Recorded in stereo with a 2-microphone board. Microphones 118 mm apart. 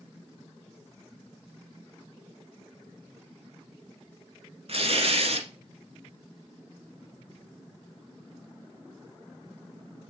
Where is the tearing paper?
65° right (ahead or behind), 1.4 m.